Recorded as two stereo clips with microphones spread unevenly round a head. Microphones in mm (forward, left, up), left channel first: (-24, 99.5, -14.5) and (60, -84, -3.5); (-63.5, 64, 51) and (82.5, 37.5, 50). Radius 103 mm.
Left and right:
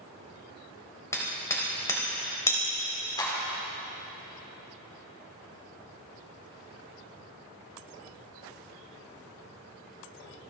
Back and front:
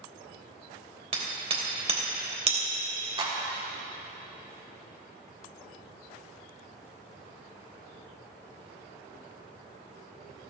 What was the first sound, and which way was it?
Hammering, 40° left.